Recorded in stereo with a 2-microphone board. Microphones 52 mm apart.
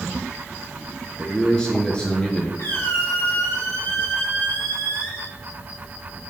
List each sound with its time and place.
1.2 s a man speaking: 10° left (ahead or behind), 1.4 m; by 2.5 s 20° left (ahead or behind), 1.9 m
2.6 s a squeak: 45° left (ahead or behind), 3 m